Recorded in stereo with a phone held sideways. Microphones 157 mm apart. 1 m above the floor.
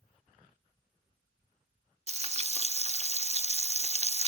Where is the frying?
45° right (ahead or behind), 0.8 m.